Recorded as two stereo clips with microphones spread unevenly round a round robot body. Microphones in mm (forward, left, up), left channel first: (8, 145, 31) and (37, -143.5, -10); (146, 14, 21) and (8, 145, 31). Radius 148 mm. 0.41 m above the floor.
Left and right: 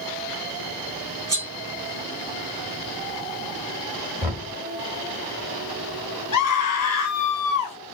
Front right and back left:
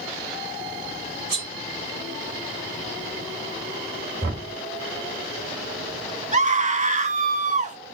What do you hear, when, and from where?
1.3 s cutlery clinking: 160° right, 2 m
4.2 s knocking: 165° right, 2.5 m
6.3 s a scream: 100° left, 1.2 m